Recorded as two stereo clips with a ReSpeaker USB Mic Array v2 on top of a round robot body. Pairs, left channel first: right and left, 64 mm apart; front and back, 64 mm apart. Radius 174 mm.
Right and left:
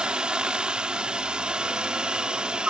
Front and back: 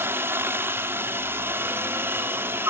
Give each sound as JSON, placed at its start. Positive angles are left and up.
{"t": 0.0, "sound": "a helicopter", "azimuth_deg": 155}